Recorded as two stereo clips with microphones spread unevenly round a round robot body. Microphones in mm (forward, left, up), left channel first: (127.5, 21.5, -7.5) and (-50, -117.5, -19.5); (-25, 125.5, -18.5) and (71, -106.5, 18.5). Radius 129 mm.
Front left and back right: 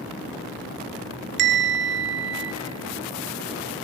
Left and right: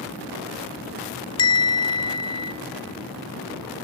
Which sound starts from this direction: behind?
A bell, at 1.4 s.